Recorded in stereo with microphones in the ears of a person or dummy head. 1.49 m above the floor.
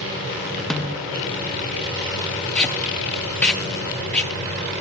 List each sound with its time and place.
0.7 s a snare drum: 5° left (ahead or behind), 0.7 m
2.5 s tape being pulled: 5° left (ahead or behind), 0.7 m